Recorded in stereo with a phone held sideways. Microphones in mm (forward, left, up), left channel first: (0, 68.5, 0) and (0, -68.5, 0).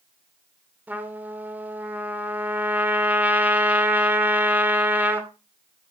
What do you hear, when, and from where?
0.9 s a trumpet: 10° right (ahead or behind), 2.5 m